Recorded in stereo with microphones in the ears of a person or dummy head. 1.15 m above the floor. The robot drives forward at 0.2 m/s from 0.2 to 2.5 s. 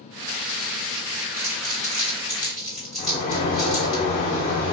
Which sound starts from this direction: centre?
Crumpling, at 1.4 s.